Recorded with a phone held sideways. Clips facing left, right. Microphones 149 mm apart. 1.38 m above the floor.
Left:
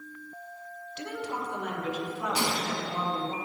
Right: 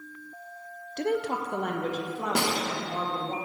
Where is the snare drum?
65° right (ahead or behind), 0.8 m.